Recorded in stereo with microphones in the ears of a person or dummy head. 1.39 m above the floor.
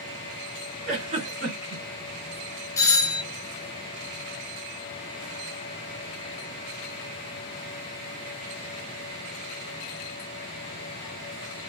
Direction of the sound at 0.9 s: 45° right (ahead or behind).